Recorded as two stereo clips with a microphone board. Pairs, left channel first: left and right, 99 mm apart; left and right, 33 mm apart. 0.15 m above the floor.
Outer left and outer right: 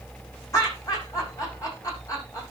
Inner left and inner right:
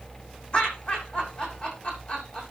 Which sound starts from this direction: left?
Laughter, at 0.5 s.